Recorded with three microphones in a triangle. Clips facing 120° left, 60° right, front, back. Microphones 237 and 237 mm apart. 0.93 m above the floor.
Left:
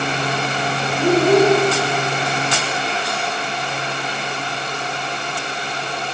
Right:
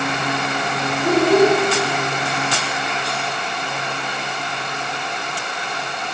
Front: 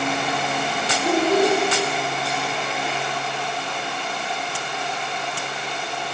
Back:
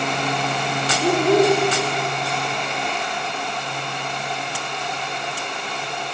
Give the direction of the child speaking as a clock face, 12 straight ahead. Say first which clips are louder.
Left 1 dB, back 3 dB; 7 o'clock.